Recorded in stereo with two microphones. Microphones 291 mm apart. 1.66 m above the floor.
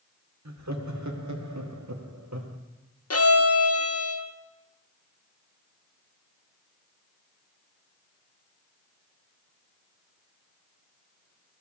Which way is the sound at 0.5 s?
65° right (ahead or behind).